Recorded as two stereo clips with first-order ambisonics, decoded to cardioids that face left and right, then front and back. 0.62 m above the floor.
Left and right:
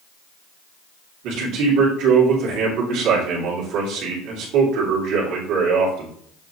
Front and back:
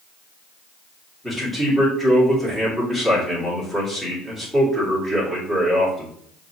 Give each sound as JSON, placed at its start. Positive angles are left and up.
{"t": 1.2, "sound": "a man speaking", "azimuth_deg": -90, "distance_m": 1.8}